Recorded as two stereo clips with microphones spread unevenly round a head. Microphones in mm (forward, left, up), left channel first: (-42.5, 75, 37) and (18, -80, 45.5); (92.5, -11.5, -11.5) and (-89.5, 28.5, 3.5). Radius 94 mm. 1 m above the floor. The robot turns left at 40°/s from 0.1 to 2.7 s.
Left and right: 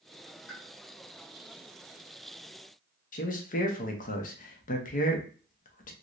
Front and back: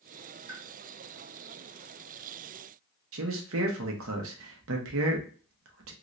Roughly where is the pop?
Behind left.